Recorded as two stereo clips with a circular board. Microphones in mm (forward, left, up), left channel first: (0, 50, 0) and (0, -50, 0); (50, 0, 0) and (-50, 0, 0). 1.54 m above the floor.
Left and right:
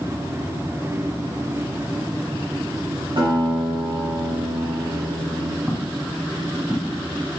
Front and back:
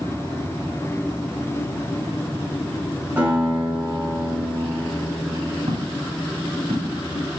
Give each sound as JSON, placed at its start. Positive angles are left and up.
{"t": 3.2, "sound": "a guitar", "azimuth_deg": -110, "distance_m": 5.0}
{"t": 5.7, "sound": "footsteps", "azimuth_deg": 175, "distance_m": 3.5}